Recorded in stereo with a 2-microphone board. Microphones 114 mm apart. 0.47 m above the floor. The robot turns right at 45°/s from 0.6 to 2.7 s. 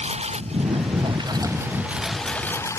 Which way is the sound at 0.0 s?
70° right.